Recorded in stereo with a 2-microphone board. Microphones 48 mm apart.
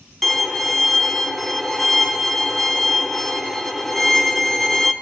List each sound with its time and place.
0.2 s a violin: 5° left (ahead or behind), 1.2 m